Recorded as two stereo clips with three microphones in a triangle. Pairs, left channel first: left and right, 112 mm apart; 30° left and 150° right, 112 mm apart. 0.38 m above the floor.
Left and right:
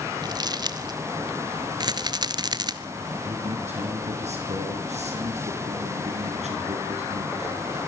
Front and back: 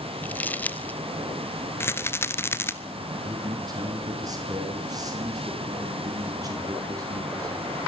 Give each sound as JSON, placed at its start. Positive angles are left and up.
{"t": 0.2, "sound": "crumpling", "azimuth_deg": -45, "distance_m": 1.1}
{"t": 1.8, "sound": "a rattle", "azimuth_deg": -40, "distance_m": 1.1}
{"t": 3.2, "sound": "a man speaking", "azimuth_deg": -95, "distance_m": 5.5}